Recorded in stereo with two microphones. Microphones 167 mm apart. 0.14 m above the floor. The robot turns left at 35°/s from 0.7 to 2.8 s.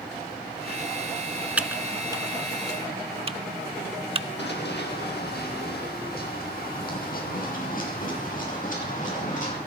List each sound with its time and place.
1.6 s typing on a keyboard: 10° right (ahead or behind), 0.5 m; by 4.3 s 30° right (ahead or behind), 0.5 m
4.4 s running footsteps: 80° left, 3.5 m; by 9.6 s 50° left (ahead or behind), 8.5 m